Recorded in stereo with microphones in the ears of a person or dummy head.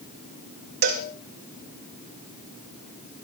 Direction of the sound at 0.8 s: 50° right (ahead or behind).